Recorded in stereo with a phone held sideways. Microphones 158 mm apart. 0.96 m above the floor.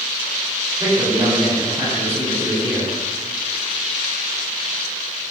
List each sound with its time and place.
0.8 s a man speaking: 20° right (ahead or behind), 4 m